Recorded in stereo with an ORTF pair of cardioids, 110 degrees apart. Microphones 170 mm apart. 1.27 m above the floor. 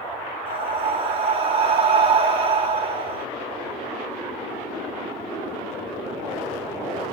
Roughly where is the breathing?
Ahead right.